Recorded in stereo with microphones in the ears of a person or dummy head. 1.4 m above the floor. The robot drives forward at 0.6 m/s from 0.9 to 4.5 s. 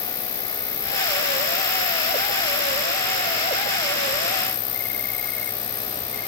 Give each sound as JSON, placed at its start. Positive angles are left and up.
{"t": 0.0, "sound": "an insect", "side_deg": 20}